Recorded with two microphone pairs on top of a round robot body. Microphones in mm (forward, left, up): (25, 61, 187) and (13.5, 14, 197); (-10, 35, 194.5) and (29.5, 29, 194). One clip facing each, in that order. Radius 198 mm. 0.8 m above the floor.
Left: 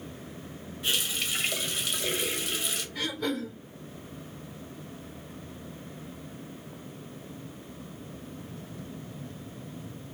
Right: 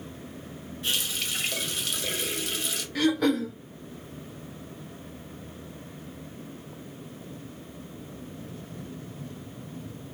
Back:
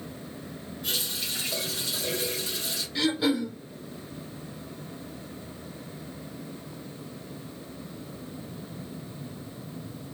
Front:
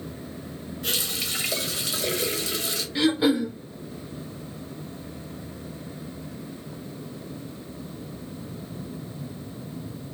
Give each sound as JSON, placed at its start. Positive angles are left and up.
{"t": 0.8, "sound": "a running tap", "azimuth_deg": -10, "distance_m": 1.0}
{"t": 3.0, "sound": "throat clearing", "azimuth_deg": -80, "distance_m": 0.5}